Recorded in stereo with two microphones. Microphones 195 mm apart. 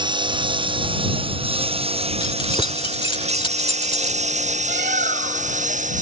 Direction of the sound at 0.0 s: 25° right (ahead or behind).